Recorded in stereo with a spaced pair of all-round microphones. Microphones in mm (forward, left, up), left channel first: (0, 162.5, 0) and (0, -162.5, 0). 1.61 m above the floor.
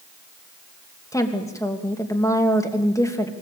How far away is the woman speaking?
About 2.5 m.